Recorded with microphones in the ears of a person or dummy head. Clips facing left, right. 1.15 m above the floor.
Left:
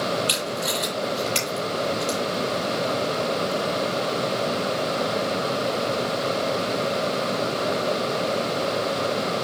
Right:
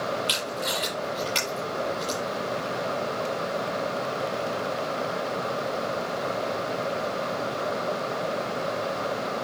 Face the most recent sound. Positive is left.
turn(degrees=0)  # may be behind; listen again after turning